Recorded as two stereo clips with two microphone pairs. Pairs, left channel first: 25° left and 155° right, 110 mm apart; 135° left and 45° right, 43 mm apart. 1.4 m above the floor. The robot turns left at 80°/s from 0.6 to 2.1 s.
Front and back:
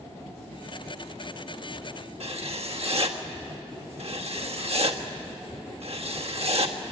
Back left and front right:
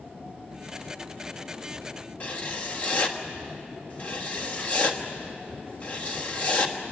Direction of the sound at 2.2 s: 170° right.